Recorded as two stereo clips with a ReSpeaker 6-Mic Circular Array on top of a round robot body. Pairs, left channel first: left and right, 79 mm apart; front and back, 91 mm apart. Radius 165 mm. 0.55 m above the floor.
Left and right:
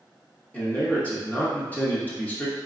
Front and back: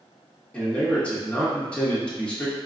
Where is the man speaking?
60° left, 1.0 m.